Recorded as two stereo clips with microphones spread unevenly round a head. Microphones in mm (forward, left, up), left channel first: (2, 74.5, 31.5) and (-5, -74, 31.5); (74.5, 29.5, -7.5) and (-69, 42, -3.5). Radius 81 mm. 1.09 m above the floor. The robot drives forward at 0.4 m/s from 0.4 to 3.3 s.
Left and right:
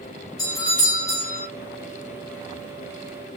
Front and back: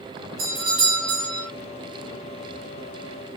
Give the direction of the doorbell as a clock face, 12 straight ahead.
7 o'clock.